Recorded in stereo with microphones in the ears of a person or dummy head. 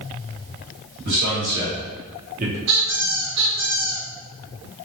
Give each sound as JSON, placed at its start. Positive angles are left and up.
{"t": 1.1, "sound": "a man speaking", "side_deg": -50, "distance_m": 1.5}
{"t": 2.7, "sound": "a squeak", "side_deg": -65, "distance_m": 1.2}